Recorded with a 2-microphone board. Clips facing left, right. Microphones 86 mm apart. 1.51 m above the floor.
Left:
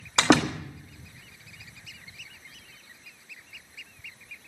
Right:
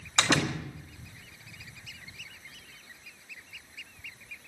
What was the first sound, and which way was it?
A door slam, 75° left (ahead or behind).